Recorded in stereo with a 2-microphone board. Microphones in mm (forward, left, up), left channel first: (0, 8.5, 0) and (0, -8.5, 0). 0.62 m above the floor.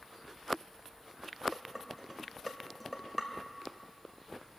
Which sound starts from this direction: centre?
Dishes clattering, at 1.5 s.